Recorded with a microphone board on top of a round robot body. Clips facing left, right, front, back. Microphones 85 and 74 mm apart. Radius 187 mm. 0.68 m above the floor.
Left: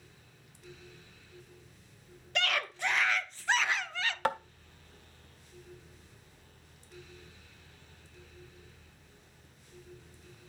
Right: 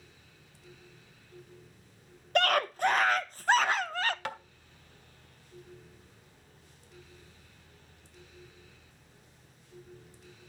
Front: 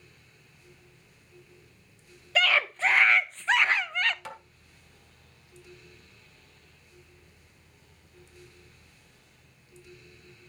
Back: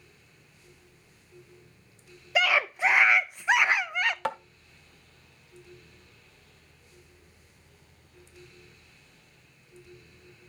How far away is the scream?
About 0.8 m.